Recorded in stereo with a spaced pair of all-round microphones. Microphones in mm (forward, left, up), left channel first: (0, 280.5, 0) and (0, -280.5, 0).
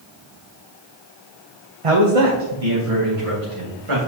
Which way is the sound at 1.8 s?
65° right (ahead or behind).